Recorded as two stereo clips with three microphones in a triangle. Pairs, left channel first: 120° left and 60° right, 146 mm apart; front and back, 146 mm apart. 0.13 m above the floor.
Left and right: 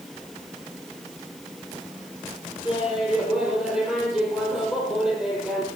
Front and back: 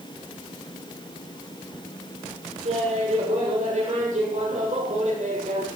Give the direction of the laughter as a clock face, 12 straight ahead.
5 o'clock.